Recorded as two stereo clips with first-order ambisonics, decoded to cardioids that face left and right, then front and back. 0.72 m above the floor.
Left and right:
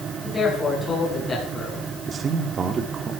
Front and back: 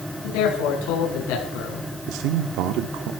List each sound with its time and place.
0.2 s a man speaking: 10° left, 6.5 m; by 1.9 s 20° left, 7.5 m
2.1 s a man speaking: 155° right, 1.3 m